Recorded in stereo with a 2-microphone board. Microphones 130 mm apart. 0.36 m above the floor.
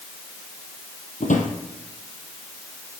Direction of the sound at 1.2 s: 80° left.